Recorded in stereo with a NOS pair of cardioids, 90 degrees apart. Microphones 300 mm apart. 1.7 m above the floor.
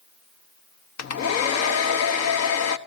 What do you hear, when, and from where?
1.0 s a hair dryer: 60° left, 1.0 m